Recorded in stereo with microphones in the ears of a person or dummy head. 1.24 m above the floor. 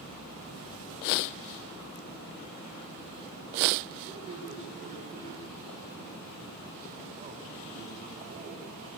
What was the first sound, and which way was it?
A man speaking, 25° right (ahead or behind).